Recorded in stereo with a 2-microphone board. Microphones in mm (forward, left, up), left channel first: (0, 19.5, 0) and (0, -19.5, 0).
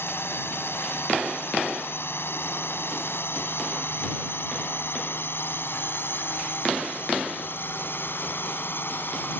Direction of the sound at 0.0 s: 75° left (ahead or behind).